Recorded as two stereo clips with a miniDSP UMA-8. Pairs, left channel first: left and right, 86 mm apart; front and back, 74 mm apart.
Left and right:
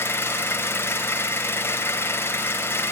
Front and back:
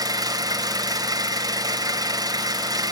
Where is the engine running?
155° left, 3 m.